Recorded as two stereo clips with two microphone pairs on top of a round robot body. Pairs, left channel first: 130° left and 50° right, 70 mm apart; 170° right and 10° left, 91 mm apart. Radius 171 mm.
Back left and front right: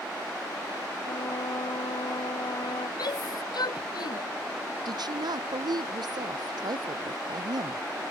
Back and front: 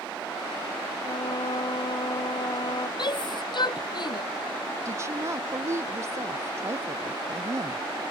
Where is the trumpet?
150° left.